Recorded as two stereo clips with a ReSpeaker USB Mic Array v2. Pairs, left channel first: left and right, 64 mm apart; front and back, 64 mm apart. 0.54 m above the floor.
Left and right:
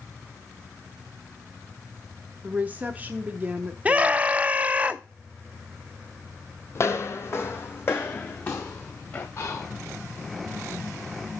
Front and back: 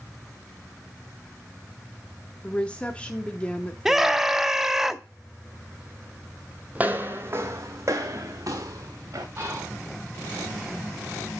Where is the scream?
105° right, 0.6 m.